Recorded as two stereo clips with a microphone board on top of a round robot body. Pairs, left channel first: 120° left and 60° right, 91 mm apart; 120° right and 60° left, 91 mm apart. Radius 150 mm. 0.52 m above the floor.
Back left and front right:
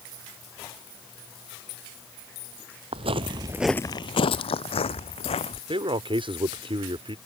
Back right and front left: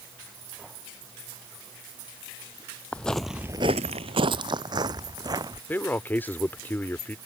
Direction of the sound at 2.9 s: 40° right.